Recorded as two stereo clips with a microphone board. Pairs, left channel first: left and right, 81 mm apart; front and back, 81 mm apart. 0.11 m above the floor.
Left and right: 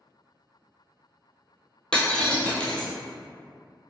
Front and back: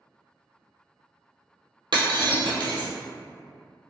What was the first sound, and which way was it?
Breaking glass, 170° left.